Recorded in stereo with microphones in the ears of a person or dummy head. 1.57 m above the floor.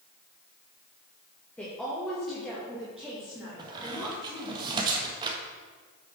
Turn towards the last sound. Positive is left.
turn(degrees=-25)  # may be behind; listen again after turning